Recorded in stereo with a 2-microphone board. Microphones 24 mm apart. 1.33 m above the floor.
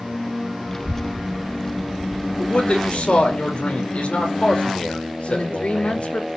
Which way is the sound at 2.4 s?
65° left (ahead or behind).